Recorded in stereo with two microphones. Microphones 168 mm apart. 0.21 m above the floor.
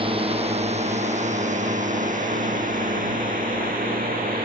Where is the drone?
30° right (ahead or behind); by 4.5 s 55° right (ahead or behind).